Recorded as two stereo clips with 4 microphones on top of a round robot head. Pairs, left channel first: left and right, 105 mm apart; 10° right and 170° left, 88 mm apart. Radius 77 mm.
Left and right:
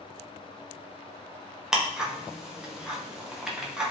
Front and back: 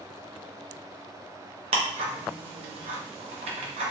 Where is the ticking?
175° right, 0.6 m.